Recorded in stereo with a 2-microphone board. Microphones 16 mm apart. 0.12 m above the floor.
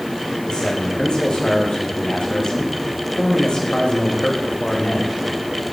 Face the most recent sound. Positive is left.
turn(degrees=70)  # may be behind; listen again after turning